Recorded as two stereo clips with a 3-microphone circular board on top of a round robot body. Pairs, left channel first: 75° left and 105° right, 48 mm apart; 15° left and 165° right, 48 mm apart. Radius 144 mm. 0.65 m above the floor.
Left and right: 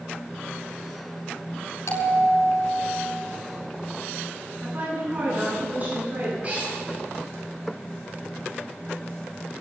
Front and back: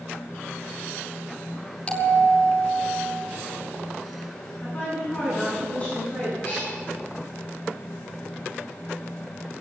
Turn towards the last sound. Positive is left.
turn(degrees=-45)